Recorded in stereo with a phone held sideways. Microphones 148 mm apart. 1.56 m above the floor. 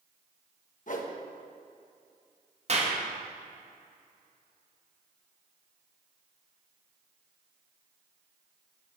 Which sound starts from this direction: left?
A whoosh, at 0.9 s.